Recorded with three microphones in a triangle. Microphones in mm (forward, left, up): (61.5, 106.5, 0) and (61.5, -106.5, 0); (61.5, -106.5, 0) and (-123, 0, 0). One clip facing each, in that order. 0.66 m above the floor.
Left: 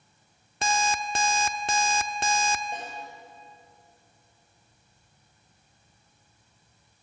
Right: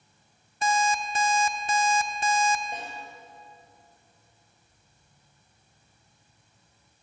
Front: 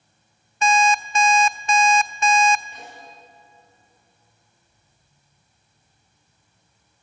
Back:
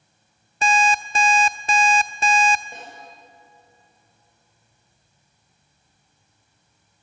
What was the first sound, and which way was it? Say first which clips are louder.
An alarm clock: right 2 dB, front 2 dB; 95° left.